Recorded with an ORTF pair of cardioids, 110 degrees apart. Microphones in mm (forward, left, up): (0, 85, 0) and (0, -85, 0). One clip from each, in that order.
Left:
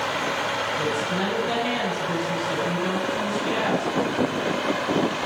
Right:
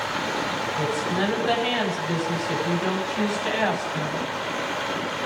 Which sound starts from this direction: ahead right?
A woman speaking, at 0.8 s.